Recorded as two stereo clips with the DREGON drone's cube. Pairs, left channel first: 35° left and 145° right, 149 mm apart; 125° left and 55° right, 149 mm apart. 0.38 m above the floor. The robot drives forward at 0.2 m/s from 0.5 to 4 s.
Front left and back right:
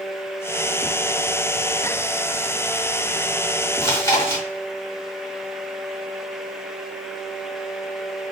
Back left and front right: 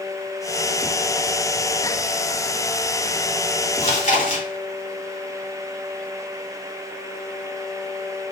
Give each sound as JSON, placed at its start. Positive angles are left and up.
{"t": 3.8, "sound": "chewing", "azimuth_deg": 100, "distance_m": 1.6}